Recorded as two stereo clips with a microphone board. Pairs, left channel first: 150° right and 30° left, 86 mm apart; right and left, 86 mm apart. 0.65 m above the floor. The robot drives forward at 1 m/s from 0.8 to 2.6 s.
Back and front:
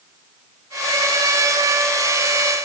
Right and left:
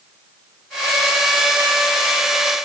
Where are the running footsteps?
I don't hear running footsteps.